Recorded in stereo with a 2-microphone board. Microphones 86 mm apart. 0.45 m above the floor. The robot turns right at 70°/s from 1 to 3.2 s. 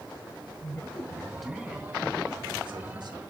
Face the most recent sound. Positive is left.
turn(degrees=-55)